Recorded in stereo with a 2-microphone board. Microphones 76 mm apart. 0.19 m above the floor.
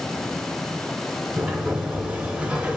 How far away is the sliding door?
About 1.2 m.